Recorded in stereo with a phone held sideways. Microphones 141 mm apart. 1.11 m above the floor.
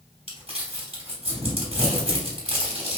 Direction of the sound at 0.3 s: 45° right (ahead or behind).